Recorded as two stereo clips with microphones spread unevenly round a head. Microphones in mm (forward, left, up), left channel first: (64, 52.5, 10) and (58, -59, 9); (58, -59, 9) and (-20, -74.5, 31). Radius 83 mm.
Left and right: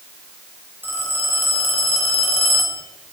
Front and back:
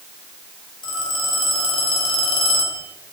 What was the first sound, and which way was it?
A phone ringing, 20° right.